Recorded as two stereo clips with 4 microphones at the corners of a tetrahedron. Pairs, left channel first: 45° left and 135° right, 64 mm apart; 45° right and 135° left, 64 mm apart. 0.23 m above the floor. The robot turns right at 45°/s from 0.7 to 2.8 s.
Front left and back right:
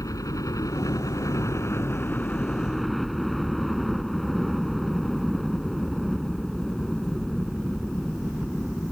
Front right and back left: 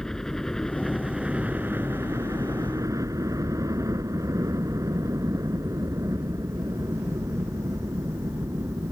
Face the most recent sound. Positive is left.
turn(degrees=130)